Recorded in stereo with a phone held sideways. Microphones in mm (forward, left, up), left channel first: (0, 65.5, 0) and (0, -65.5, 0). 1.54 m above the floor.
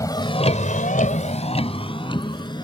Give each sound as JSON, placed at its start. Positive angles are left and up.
{"t": 0.0, "sound": "a vehicle", "side_deg": 25}